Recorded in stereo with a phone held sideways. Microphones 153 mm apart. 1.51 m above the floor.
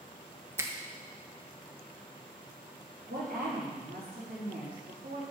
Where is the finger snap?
15° right (ahead or behind), 1.0 m.